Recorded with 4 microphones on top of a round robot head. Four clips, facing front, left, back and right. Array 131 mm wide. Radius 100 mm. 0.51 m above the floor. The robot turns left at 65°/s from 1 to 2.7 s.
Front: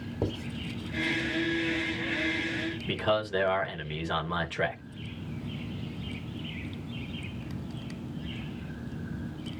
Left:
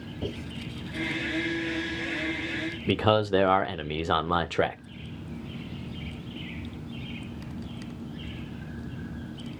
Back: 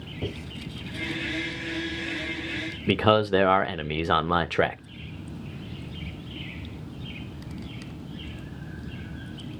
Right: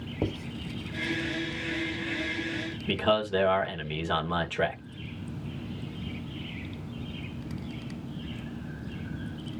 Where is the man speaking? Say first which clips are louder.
Left 3 dB, back 8 dB; 155° left, 1.4 m.